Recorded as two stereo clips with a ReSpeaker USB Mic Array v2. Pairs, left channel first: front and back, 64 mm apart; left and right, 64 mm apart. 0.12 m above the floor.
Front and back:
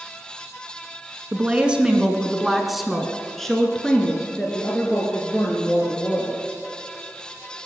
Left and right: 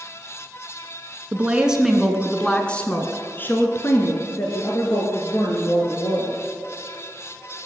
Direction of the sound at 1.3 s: 135° right.